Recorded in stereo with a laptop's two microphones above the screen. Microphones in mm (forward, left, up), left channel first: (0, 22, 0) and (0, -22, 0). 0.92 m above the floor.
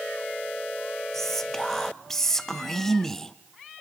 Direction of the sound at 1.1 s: 10° left (ahead or behind).